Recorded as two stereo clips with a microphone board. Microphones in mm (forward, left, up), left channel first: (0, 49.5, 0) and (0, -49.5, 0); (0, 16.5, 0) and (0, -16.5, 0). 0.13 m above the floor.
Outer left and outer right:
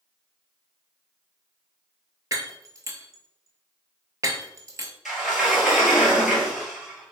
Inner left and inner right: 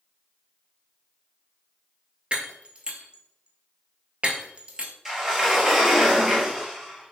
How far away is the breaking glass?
About 0.7 m.